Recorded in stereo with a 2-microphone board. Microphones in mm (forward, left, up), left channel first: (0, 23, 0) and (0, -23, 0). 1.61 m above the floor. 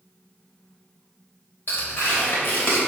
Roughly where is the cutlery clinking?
I don't hear cutlery clinking.